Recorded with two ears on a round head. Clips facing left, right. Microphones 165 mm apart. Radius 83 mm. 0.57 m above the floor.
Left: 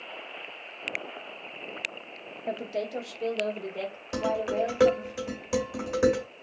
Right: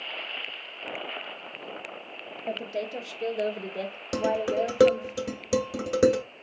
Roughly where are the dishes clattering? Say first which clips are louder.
Right 2 dB; right.